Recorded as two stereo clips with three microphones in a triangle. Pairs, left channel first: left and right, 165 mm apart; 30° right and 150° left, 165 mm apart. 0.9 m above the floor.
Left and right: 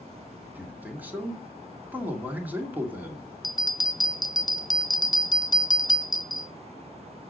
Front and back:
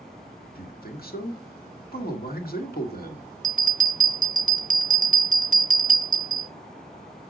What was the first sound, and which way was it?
A man speaking, 10° right.